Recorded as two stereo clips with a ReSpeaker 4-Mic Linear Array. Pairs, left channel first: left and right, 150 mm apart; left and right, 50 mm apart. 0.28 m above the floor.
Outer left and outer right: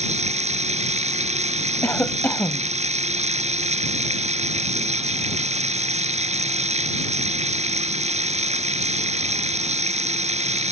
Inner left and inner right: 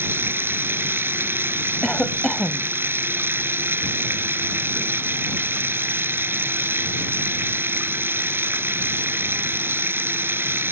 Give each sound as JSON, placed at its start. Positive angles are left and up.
{"t": 0.0, "sound": "running water", "side_deg": -50}
{"t": 1.8, "sound": "a cough", "side_deg": 10}